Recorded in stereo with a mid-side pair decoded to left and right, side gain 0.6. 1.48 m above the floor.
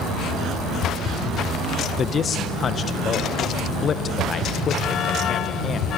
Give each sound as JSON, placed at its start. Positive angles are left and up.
{"t": 2.0, "sound": "a man speaking", "azimuth_deg": 40, "distance_m": 1.5}